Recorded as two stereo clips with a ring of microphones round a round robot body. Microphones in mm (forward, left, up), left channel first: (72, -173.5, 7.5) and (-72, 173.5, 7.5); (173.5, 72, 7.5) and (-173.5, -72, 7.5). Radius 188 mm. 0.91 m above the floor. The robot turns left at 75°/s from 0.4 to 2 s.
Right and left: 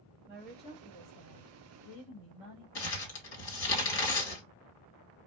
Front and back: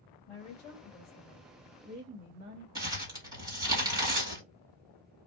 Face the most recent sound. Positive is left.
turn(degrees=-80)